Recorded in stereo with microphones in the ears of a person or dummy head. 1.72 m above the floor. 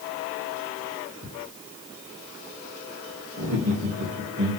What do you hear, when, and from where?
1.2 s ticking: 50° right (ahead or behind), 1.5 m
3.4 s laughter: 30° right (ahead or behind), 0.7 m